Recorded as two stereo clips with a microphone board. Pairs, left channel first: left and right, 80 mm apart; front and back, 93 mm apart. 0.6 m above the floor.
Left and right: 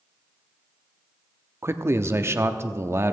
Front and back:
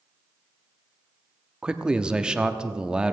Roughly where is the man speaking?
Right.